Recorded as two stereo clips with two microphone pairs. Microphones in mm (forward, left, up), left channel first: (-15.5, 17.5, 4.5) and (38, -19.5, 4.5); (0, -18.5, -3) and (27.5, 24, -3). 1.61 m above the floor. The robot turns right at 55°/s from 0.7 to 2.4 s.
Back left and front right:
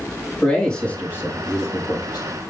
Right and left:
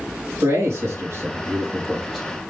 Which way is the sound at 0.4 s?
65° left.